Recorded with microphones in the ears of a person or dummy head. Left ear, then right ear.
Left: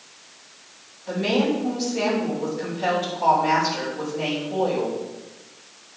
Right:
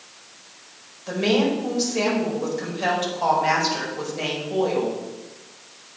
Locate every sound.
1.1 s a woman speaking: 85° right, 4.5 m